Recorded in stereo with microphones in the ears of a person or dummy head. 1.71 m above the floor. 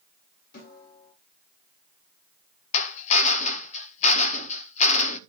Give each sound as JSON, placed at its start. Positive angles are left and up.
{"t": 0.5, "sound": "a snare drum", "side_deg": 50, "distance_m": 8.5}
{"t": 2.7, "sound": "a drill", "side_deg": 40, "distance_m": 0.8}